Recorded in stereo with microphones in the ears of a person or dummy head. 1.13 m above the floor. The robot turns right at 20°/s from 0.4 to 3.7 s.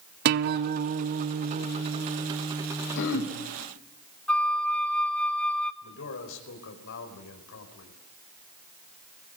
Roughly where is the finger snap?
No finger snap in this recording.